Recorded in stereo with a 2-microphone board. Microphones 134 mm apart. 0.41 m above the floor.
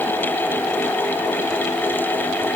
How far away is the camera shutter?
No camera shutter in this recording.